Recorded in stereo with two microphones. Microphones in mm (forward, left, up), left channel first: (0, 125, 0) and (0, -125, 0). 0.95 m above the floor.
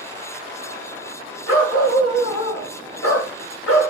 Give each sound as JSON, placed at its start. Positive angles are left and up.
{"t": 1.5, "sound": "a dog barking", "side_deg": 75, "distance_m": 1.6}